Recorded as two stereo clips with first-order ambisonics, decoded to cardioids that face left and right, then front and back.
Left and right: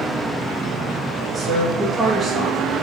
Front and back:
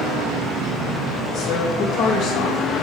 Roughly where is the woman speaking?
Ahead.